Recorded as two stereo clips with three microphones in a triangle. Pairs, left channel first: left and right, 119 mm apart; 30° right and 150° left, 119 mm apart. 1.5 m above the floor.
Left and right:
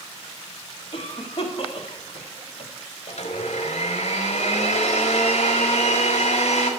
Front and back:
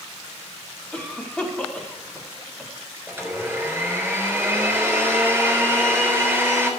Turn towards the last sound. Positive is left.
turn(degrees=80)